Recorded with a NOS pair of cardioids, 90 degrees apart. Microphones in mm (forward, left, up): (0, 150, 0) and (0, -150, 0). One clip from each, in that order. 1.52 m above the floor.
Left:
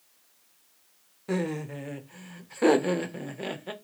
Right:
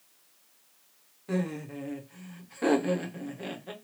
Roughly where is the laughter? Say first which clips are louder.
Left 3 dB; ahead left.